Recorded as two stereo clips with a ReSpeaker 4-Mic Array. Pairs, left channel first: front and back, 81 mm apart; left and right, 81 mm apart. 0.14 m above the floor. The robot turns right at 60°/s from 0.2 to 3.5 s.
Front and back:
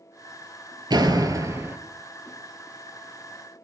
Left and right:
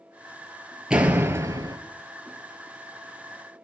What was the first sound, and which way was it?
A door slam, 170° right.